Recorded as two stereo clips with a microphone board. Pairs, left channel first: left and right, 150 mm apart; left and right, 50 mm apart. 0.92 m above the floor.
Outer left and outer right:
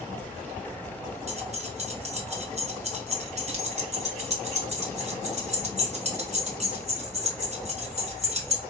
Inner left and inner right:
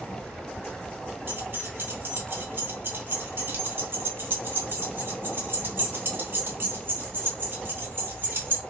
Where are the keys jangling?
50° right (ahead or behind), 0.7 m.